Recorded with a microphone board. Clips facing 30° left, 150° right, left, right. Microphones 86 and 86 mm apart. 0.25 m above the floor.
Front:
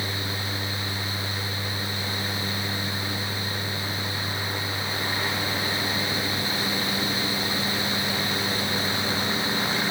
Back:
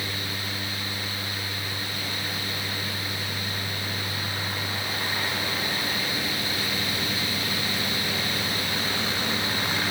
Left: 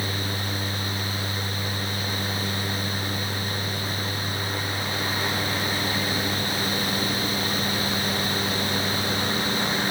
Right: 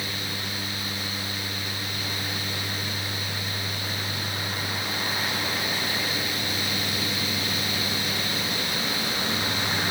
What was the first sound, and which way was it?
Only background noise.